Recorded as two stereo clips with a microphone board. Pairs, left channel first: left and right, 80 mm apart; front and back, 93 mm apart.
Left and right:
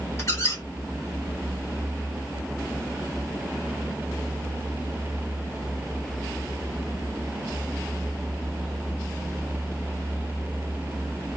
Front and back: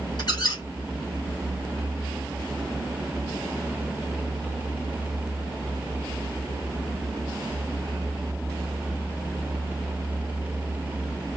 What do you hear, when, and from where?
0.2 s a squeak: 40° left, 2 m